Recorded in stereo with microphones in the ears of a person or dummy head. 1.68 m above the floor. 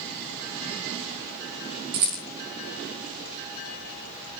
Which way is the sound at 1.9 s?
50° right (ahead or behind).